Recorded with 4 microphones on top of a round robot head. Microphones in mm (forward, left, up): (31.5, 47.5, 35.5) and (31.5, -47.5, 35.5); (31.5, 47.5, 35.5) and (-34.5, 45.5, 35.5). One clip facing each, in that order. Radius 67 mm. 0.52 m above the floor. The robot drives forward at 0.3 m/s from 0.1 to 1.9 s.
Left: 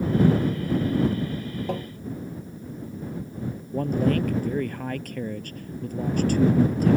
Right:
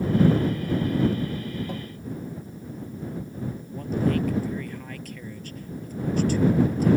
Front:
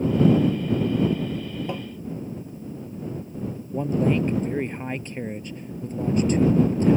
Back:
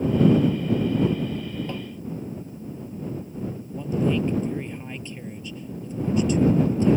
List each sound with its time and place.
1.7 s tapping: 75° left
3.7 s a man speaking: 50° left